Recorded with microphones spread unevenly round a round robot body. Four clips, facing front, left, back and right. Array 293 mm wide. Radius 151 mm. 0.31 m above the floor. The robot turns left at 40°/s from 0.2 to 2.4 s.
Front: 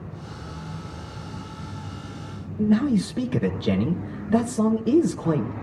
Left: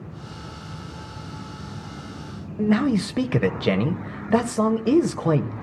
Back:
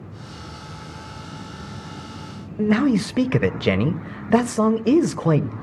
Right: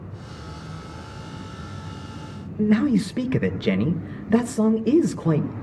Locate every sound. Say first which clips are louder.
2.6 s a man speaking: right 1 dB, back 2 dB; 170° left, 1.1 m